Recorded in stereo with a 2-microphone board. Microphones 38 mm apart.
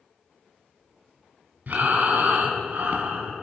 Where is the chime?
I don't hear a chime.